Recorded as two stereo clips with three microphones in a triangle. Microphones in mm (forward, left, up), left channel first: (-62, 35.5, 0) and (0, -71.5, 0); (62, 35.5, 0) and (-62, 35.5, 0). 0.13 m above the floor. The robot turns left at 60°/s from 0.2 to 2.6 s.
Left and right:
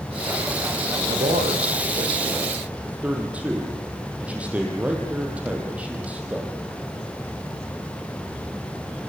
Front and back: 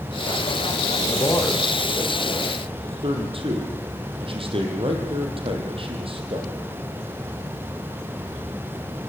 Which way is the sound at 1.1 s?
45° right.